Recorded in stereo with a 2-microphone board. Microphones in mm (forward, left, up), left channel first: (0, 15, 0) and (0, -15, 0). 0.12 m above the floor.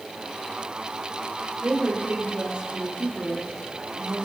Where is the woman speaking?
65° right (ahead or behind), 3.5 m.